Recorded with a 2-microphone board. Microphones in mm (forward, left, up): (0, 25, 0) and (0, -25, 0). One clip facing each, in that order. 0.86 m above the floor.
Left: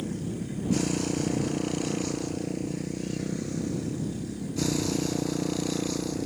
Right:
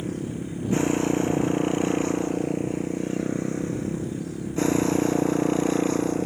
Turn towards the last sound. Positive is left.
turn(degrees=-35)  # may be behind; listen again after turning